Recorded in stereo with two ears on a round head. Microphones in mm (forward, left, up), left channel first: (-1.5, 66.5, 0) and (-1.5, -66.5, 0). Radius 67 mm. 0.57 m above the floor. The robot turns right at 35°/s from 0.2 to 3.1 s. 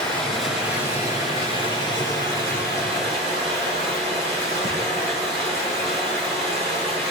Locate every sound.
0.0 s running water: 175° left, 7 m; by 7.1 s 85° right, 7 m